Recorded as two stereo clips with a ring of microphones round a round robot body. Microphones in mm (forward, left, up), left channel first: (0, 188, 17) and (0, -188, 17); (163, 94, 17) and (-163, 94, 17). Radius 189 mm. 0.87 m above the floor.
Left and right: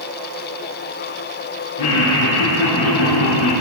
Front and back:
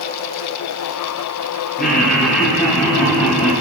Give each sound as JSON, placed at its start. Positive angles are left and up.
{"t": 1.8, "sound": "laughter", "azimuth_deg": 60, "distance_m": 5.5}